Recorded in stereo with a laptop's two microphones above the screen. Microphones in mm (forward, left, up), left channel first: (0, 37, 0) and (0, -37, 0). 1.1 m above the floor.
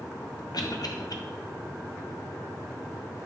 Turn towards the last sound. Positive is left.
turn(degrees=65)  # may be behind; listen again after turning